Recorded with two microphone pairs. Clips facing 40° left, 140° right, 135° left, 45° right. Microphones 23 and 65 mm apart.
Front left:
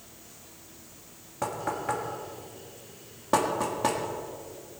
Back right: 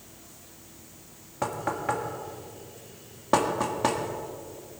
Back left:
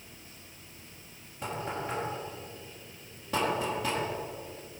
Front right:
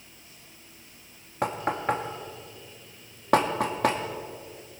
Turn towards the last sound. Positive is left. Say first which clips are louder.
# back right 2 dB, front right 8 dB
turn(degrees=-65)